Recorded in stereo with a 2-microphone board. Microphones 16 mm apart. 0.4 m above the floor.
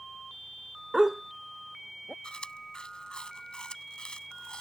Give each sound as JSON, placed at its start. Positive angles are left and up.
{"t": 0.9, "sound": "a dog barking", "side_deg": -20}
{"t": 2.2, "sound": "chewing", "side_deg": 65}